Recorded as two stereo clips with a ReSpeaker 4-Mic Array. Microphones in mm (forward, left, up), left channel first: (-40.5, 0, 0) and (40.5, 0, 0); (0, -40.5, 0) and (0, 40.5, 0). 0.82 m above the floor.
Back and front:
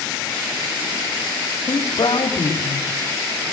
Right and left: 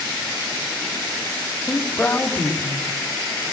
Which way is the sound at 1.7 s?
165° right.